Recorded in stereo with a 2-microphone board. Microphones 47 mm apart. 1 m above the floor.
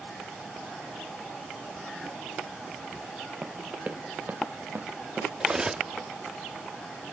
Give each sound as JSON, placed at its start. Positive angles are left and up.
{"t": 3.4, "sound": "running footsteps", "side_deg": -25, "distance_m": 1.4}
{"t": 5.4, "sound": "cutlery clinking", "side_deg": -15, "distance_m": 0.8}